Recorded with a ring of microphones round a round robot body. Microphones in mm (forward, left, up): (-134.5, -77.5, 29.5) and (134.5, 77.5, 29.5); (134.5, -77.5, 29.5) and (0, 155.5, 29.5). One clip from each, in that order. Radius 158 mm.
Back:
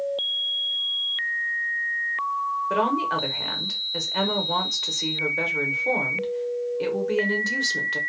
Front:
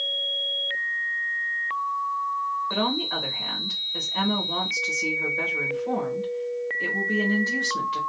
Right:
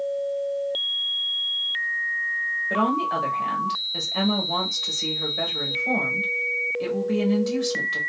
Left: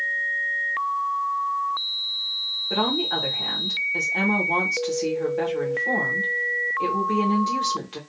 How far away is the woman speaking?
About 1.0 m.